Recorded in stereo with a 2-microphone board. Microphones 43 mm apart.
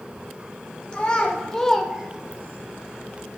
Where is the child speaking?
25° left (ahead or behind), 1.7 m; by 2.6 s 55° right (ahead or behind), 0.8 m.